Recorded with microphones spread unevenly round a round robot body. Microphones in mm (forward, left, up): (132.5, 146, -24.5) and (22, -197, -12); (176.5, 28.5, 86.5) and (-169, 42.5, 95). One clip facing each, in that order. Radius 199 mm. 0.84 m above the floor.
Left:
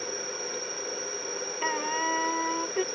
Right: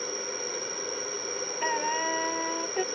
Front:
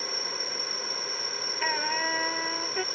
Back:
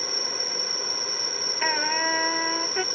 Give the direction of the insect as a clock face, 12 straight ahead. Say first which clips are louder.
Right 1 dB, back 3 dB; 7 o'clock.